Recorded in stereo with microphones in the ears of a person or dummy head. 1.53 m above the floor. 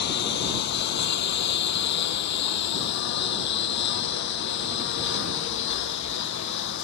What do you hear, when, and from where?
0.0 s a lawn mower: 60° left (ahead or behind); by 6.8 s 65° left (ahead or behind)